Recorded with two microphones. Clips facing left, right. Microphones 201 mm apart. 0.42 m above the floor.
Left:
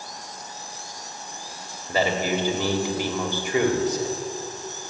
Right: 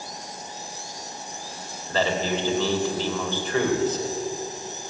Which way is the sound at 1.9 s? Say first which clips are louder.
Left 1 dB; 15° left (ahead or behind).